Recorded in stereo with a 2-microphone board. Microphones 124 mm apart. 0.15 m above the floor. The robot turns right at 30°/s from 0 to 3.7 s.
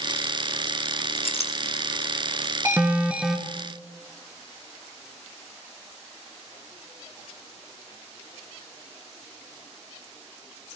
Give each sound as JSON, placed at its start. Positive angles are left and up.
{"t": 1.2, "sound": "a clink", "side_deg": 55, "distance_m": 1.3}
{"t": 2.6, "sound": "an alarm", "side_deg": -20, "distance_m": 2.5}